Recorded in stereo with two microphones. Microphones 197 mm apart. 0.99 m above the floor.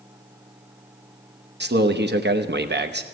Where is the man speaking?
60° right (ahead or behind), 0.9 m.